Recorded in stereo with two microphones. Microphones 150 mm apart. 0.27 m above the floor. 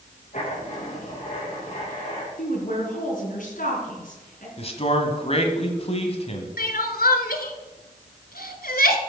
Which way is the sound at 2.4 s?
65° left (ahead or behind).